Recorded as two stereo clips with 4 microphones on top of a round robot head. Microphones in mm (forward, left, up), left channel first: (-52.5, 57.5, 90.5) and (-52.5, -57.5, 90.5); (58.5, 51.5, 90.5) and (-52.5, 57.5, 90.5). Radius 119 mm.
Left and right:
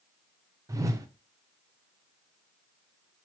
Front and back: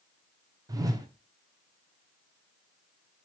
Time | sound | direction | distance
0.7 | a whoosh | 140° right | 0.7 m